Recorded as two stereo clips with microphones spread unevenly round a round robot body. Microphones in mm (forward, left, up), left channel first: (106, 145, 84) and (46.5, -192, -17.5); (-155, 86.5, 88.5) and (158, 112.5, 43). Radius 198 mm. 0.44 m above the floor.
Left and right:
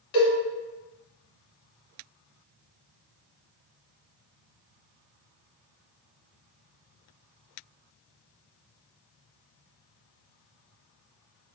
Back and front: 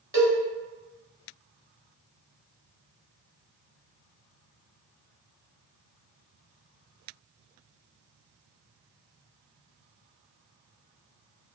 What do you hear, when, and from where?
0.1 s a cowbell: 75° left, 1.7 m